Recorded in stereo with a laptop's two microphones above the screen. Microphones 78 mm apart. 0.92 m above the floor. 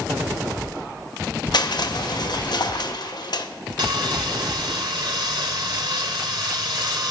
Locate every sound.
1.5 s crushing: 65° left (ahead or behind), 0.6 m
3.8 s sawing: 70° right (ahead or behind), 1.2 m